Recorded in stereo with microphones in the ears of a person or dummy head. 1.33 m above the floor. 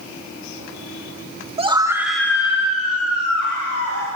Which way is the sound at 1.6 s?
30° right (ahead or behind).